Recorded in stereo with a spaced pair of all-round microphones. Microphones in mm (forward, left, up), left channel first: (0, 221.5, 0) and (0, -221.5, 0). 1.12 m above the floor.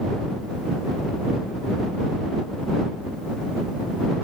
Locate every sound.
Only background noise.